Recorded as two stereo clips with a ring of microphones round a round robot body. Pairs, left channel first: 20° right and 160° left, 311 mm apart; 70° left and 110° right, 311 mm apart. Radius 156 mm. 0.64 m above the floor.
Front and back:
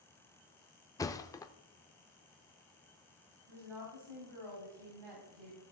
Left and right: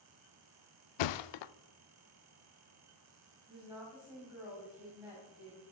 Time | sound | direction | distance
1.0 | a thud | 60° left | 0.5 m
3.5 | a woman speaking | 160° left | 4.5 m